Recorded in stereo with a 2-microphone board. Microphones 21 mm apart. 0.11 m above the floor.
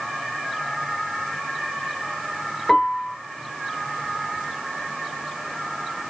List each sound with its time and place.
2.7 s a piano: 20° left (ahead or behind), 1.0 m